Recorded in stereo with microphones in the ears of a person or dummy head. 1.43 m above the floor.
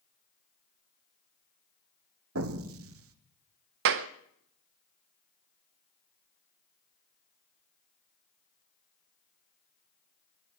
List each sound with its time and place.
2.4 s an explosion: 75° right (ahead or behind), 1.2 m
3.9 s a clap: 60° right (ahead or behind), 0.7 m